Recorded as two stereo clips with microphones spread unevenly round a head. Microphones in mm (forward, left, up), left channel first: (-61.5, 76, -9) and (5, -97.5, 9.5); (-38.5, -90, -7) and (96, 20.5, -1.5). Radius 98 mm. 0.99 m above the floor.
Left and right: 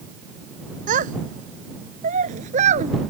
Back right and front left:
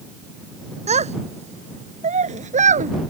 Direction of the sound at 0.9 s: 15° right.